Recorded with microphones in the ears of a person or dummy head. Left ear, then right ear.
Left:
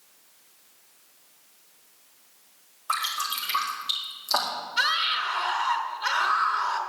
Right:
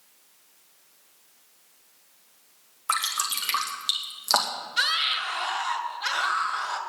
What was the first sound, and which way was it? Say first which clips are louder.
Dripping: right 1 dB; 60° right (ahead or behind).